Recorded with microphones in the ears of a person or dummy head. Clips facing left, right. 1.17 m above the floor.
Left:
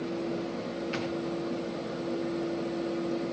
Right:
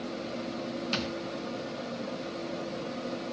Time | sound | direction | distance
0.9 | a thud | 50° right (ahead or behind) | 3 m